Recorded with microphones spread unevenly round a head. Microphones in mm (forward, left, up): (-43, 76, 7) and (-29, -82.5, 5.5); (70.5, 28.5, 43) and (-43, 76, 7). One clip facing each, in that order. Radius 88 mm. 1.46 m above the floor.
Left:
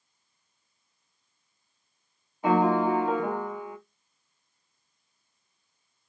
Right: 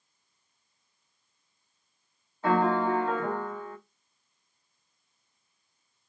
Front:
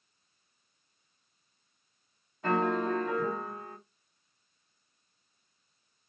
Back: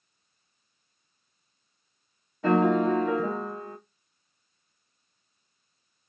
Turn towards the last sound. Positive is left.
turn(degrees=170)